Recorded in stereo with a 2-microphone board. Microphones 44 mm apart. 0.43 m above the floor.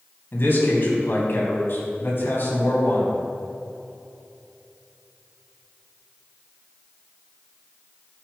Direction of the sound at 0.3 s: 55° left (ahead or behind).